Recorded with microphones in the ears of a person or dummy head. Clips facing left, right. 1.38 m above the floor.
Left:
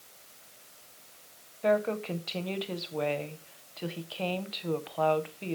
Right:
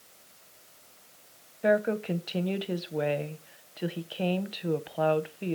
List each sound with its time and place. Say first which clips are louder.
1.6 s a woman speaking: right 2 dB; 20° right (ahead or behind), 0.5 m